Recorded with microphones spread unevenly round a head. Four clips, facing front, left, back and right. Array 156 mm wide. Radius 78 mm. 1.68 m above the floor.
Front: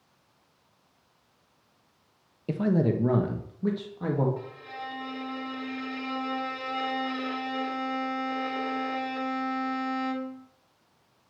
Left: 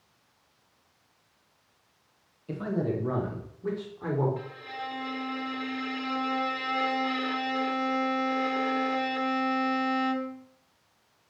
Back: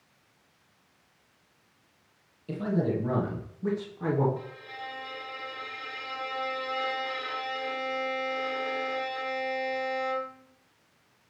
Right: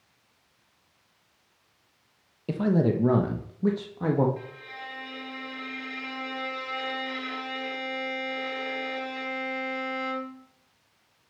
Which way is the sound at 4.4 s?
45° left.